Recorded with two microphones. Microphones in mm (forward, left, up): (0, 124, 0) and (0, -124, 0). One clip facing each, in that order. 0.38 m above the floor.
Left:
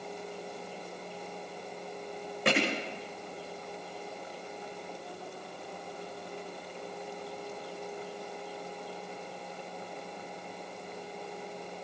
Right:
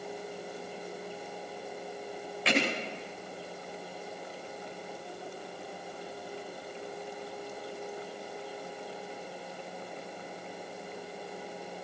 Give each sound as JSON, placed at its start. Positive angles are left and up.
{"t": 2.5, "sound": "hammering", "side_deg": 55, "distance_m": 8.0}